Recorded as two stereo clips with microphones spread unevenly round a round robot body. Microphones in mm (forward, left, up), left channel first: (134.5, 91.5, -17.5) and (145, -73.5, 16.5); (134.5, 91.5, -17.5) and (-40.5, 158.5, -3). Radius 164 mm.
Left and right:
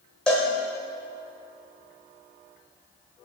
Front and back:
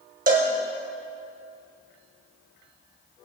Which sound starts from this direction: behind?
A cowbell, at 0.3 s.